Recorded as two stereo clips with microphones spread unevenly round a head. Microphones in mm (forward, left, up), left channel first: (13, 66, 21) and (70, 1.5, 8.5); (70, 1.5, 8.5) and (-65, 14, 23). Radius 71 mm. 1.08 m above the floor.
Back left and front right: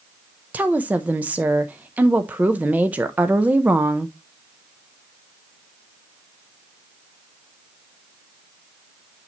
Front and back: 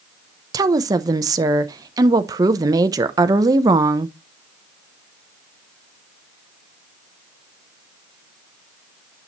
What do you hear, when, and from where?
0.5 s a woman speaking: 120° right, 0.5 m